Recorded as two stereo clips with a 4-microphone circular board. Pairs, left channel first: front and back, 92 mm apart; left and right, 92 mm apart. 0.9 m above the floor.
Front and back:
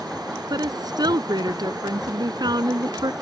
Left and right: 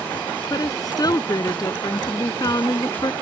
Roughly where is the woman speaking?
Behind left.